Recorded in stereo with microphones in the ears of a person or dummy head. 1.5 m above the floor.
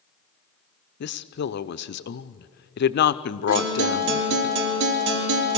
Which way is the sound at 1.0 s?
55° left (ahead or behind).